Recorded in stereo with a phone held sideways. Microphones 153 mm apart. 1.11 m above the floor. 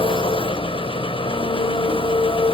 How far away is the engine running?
About 1.4 m.